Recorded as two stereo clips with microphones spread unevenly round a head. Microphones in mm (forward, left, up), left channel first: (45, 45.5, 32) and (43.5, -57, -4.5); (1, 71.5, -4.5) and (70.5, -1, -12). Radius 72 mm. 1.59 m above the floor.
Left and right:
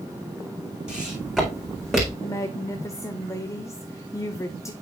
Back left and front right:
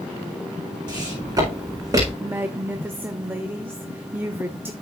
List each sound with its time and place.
0.9 s footsteps: 5° right, 4 m; by 2.1 s 5° left, 4.5 m
2.2 s a woman speaking: 20° left, 0.7 m